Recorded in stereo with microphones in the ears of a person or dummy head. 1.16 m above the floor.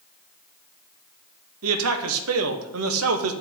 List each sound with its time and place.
1.6 s a man speaking: 75° right (ahead or behind), 1.0 m